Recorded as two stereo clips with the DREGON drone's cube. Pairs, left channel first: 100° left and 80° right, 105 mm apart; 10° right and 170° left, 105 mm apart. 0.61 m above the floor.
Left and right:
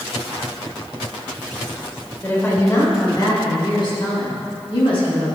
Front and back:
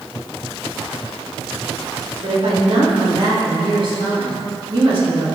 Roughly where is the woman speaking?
Behind.